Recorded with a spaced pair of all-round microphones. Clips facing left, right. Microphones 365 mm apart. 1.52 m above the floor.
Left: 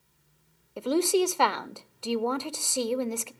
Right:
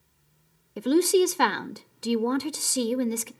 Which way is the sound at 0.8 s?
25° right (ahead or behind).